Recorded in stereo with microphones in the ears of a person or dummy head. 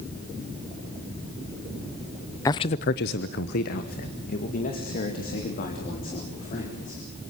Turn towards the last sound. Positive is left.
turn(degrees=45)  # may be behind; listen again after turning